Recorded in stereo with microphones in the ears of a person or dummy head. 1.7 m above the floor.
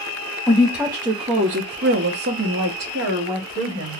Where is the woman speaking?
5° right (ahead or behind), 0.8 m; by 4.0 s 45° right (ahead or behind), 1.5 m.